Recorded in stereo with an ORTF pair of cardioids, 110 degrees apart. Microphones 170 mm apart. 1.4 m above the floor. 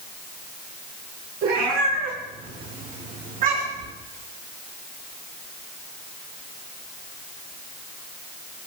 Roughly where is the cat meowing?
Ahead right.